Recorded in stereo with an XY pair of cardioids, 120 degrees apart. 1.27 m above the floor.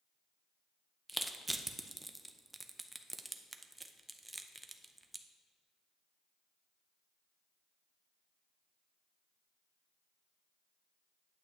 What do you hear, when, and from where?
1.1 s crushing: 10° right, 0.5 m